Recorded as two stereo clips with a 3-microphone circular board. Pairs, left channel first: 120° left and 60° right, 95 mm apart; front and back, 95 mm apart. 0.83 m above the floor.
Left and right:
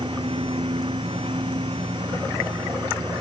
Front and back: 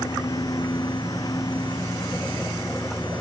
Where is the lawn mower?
45° right.